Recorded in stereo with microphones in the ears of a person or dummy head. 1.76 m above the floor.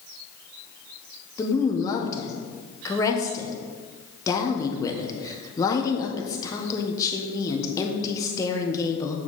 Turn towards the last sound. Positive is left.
turn(degrees=20)  # may be behind; listen again after turning